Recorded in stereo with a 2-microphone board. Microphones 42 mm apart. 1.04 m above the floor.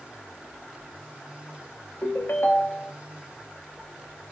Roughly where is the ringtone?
Left.